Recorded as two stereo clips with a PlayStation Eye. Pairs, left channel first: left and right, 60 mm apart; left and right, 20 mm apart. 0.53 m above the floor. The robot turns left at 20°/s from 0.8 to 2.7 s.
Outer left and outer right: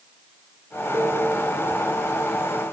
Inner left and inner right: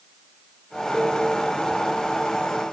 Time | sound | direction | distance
0.9 | a cowbell | 80° right | 1.9 m